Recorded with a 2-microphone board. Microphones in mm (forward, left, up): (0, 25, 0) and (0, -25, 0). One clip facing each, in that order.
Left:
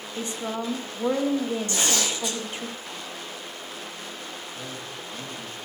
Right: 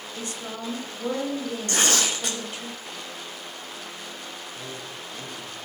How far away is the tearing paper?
About 2 m.